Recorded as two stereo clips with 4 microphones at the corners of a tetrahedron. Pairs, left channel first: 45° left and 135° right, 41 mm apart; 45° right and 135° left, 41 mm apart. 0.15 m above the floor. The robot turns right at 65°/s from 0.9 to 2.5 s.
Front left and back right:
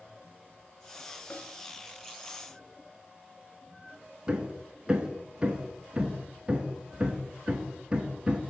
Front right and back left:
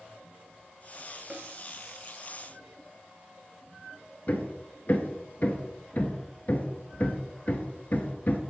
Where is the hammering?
75° right, 1.0 m.